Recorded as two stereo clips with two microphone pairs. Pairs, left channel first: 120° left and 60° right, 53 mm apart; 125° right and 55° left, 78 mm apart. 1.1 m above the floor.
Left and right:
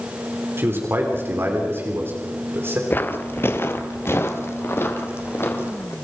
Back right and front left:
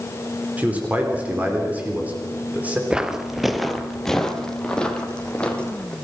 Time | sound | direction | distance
0.6 | a man speaking | 20° right | 3.5 m
2.9 | footsteps | 125° left | 1.3 m